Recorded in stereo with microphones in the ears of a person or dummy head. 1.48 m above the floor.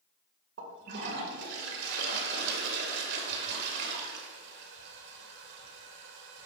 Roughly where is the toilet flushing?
Right.